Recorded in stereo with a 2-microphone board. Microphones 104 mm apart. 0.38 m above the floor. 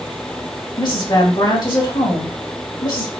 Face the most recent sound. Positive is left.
turn(degrees=45)  # may be behind; listen again after turning